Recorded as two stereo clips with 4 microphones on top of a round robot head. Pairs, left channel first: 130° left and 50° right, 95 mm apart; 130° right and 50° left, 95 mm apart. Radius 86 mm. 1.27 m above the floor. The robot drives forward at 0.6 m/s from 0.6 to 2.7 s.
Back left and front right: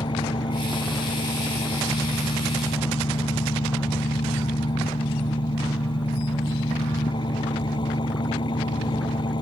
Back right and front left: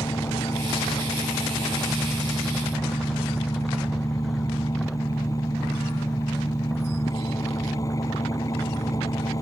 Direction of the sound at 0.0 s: 175° left.